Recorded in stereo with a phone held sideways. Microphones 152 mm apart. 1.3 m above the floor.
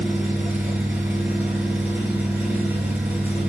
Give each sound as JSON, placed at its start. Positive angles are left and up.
{"t": 0.0, "sound": "an engine running", "side_deg": -15, "distance_m": 5.0}